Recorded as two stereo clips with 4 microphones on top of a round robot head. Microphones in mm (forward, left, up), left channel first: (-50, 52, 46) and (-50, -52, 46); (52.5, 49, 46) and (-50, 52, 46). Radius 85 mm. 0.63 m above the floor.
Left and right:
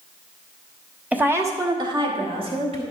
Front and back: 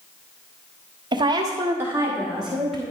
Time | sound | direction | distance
1.1 | a woman speaking | 160° right | 1.5 m